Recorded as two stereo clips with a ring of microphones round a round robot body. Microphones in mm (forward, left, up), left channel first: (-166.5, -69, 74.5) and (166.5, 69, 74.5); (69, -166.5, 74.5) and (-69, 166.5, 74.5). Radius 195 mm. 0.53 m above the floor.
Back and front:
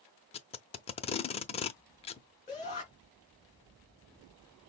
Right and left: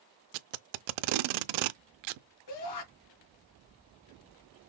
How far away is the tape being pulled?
About 0.6 m.